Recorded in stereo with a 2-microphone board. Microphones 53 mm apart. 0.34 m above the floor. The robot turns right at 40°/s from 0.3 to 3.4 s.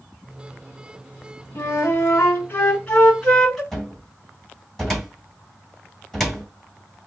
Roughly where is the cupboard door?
Centre.